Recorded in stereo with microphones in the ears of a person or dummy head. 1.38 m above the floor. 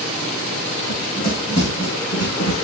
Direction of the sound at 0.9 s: 35° left (ahead or behind).